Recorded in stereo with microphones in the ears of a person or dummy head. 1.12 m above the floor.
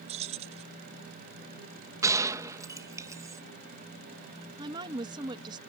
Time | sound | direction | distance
0.1 | keys jangling | 30° right (ahead or behind) | ?
2.0 | a gunshot | 10° right (ahead or behind) | ?
4.6 | a woman speaking | 20° right (ahead or behind) | ?